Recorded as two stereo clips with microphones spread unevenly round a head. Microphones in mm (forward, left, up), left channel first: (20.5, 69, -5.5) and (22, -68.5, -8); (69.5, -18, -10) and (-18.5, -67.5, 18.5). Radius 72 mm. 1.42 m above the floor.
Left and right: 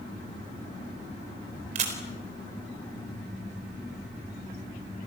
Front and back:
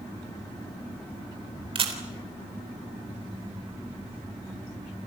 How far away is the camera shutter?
About 4 m.